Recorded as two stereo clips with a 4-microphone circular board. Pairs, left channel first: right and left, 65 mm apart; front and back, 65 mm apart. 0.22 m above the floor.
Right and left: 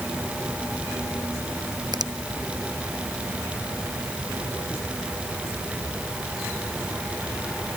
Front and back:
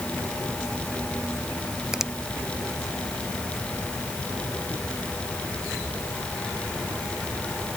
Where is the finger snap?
100° left.